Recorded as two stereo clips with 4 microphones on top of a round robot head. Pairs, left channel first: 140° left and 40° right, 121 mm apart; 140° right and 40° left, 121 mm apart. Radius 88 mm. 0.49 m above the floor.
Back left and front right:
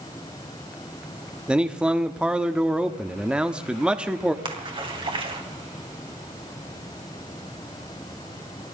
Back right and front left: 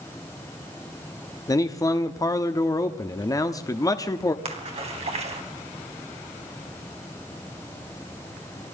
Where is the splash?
5° left, 3 m.